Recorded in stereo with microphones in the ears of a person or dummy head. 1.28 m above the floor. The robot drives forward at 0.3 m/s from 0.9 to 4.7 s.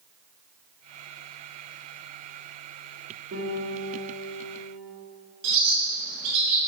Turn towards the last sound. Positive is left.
turn(degrees=-70)  # may be behind; listen again after turning